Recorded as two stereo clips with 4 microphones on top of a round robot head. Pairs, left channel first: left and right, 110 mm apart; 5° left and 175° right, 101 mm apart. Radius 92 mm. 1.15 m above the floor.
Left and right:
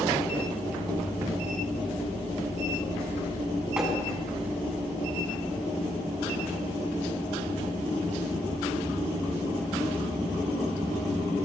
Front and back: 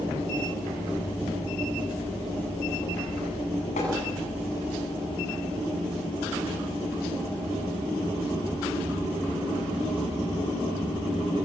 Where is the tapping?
5° right, 8.5 m.